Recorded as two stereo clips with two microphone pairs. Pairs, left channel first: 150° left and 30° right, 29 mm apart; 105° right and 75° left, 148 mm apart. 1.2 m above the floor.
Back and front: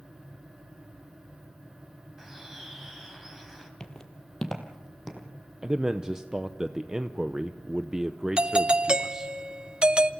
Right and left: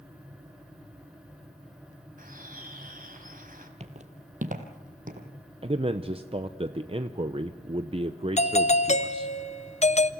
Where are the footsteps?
95° left, 1.7 m; by 5.3 s 55° left, 3 m.